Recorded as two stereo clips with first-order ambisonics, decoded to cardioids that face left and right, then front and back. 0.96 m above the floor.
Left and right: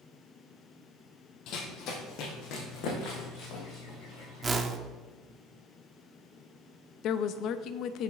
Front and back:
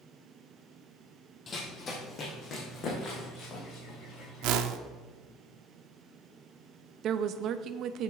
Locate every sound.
1.5 s running footsteps: 65° left, 1.5 m; by 4.5 s 50° left, 4.5 m
4.4 s a whoosh: 165° right, 0.7 m
7.0 s a woman speaking: 130° left, 0.6 m